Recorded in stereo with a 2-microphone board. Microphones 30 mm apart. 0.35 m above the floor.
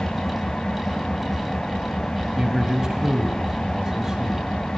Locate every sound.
0.0 s an engine running: 30° left (ahead or behind), 1.7 m
2.4 s a man speaking: 20° right (ahead or behind), 2.5 m